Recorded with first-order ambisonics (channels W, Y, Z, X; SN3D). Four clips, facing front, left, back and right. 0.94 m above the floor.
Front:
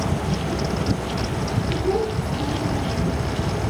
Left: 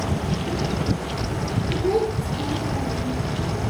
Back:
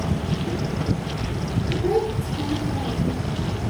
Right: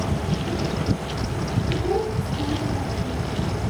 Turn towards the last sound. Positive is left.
turn(degrees=-175)